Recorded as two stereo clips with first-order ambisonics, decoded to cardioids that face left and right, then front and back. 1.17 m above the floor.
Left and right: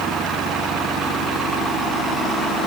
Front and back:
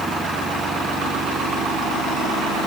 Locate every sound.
Only background noise.